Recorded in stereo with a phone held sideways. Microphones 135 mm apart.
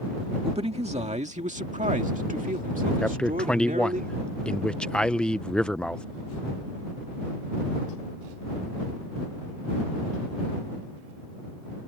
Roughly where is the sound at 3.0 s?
Centre.